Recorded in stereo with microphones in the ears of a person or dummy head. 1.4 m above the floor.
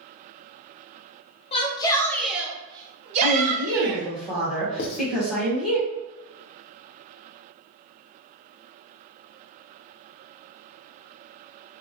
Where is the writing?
55° left (ahead or behind), 0.5 m.